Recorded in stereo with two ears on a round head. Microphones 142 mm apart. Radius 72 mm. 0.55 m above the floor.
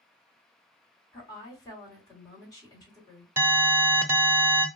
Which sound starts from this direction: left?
A woman speaking, at 1.1 s.